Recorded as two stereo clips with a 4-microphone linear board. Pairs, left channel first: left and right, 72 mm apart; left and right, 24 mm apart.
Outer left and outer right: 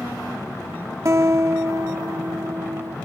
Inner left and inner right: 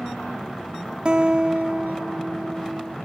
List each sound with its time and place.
1.1 s a guitar: 45° right (ahead or behind)